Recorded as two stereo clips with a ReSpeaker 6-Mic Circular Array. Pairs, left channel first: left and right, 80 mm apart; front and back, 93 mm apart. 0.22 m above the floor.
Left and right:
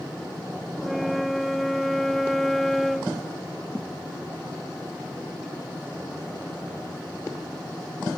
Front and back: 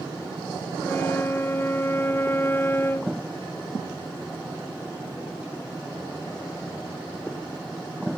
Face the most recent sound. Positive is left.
turn(degrees=5)